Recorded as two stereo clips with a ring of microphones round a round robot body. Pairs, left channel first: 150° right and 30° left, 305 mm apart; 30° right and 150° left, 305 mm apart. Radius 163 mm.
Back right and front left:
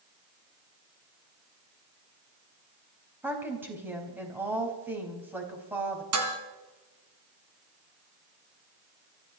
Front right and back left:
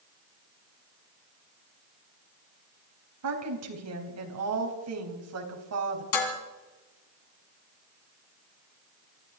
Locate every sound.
3.2 s a woman speaking: 115° left, 4 m
6.1 s dishes clattering: 10° right, 3 m